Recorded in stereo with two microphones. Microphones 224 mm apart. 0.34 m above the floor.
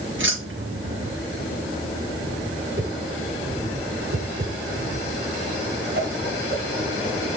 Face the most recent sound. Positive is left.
turn(degrees=-50)  # may be behind; listen again after turning